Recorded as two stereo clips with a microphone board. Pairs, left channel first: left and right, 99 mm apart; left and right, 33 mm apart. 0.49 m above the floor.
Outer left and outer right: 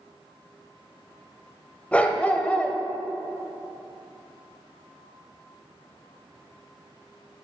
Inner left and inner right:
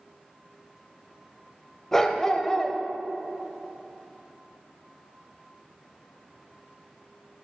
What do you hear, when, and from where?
1.9 s a dog barking: 15° left (ahead or behind), 0.6 m